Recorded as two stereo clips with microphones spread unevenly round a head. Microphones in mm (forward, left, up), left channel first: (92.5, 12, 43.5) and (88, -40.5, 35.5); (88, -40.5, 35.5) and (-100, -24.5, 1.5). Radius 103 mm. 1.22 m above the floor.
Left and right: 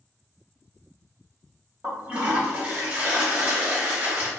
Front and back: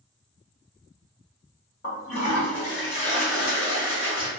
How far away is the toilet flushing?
About 1.5 m.